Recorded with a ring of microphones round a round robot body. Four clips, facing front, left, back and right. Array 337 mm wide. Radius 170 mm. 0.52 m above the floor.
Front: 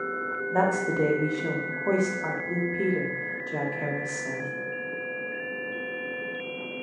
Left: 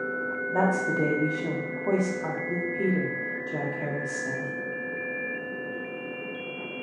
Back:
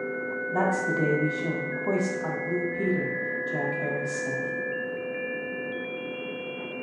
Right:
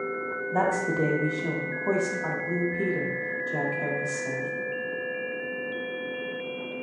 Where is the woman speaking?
10° left, 0.8 m.